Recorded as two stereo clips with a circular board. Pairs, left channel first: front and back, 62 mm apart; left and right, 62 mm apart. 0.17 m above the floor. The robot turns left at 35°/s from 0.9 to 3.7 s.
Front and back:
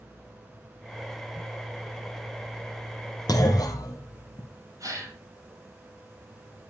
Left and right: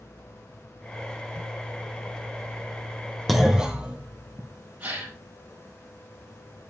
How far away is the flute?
No flute in this recording.